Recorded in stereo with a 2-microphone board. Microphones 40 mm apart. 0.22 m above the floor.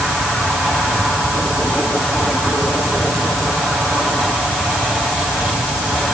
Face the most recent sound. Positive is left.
No sound to turn to.